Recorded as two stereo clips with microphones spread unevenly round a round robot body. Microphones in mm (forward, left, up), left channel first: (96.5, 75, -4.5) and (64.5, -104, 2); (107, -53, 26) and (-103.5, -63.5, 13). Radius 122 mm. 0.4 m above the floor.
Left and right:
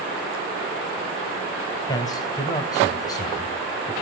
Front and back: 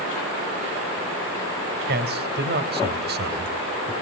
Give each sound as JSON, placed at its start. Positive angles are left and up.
{"t": 1.9, "sound": "a man speaking", "azimuth_deg": 150, "distance_m": 2.5}